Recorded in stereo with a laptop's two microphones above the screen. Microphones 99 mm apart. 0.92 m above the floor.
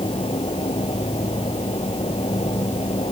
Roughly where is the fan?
Left.